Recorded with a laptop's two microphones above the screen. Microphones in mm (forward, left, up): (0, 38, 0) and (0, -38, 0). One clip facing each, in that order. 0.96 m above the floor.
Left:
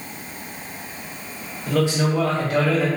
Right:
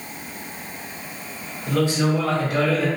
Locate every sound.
1.7 s a man speaking: 80° left, 1.6 m